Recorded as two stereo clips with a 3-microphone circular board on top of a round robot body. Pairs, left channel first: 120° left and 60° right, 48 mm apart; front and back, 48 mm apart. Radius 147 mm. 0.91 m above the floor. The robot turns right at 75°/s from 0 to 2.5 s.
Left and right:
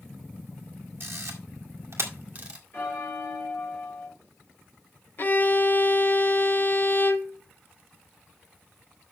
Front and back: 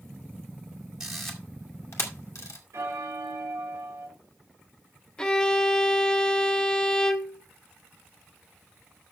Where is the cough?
I don't hear a cough.